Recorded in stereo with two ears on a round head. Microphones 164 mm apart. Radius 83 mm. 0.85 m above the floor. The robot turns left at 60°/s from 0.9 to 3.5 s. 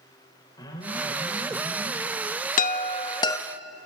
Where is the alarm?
20° left, 4 m; by 2.0 s 45° right, 4 m.